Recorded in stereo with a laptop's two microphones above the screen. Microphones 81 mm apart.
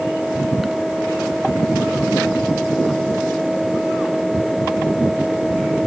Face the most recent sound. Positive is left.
turn(degrees=-5)  # may be behind; listen again after turning